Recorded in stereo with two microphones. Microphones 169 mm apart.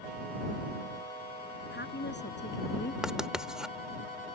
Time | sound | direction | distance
1.7 | a woman speaking | 80° left | ?
3.0 | writing | 5° right (ahead or behind) | ?